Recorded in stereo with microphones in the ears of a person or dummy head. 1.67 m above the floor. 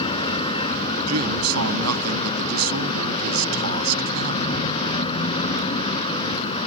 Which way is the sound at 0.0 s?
30° left (ahead or behind).